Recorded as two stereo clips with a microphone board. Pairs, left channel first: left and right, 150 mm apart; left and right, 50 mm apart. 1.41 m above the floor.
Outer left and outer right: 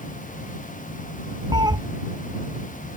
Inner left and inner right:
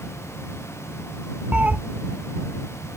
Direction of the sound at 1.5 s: 25° right (ahead or behind).